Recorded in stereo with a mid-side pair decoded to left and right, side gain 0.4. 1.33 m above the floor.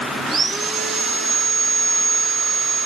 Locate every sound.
0.3 s sawing: 65° right, 1.7 m